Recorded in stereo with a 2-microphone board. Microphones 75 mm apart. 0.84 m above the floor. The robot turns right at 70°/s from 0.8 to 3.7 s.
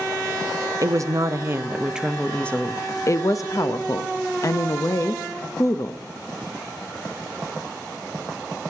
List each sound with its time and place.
0.8 s a woman speaking: 95° right, 0.6 m; by 6.0 s 105° left, 0.6 m